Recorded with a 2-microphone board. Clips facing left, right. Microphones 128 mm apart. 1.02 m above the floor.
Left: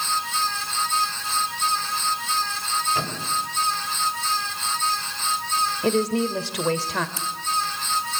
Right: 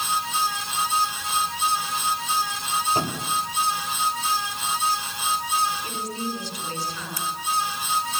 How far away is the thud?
About 8.5 m.